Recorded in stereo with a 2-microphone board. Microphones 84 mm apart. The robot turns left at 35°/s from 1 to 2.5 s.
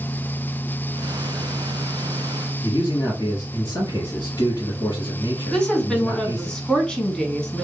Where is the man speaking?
45° left (ahead or behind), 1.9 m.